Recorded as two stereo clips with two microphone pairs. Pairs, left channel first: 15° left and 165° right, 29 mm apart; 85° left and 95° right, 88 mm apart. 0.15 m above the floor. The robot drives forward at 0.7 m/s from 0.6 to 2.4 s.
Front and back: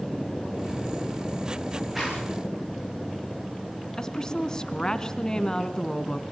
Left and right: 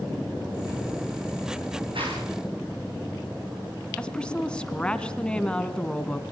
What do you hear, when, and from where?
1.9 s a zipper: 85° right, 9.5 m
4.0 s a woman speaking: 20° left, 1.5 m